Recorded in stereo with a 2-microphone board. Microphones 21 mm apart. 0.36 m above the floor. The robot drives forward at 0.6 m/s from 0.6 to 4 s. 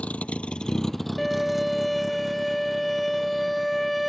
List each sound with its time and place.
0.0 s a vehicle: 80° left; by 4.1 s 25° right (ahead or behind)
1.2 s a violin: 5° left (ahead or behind)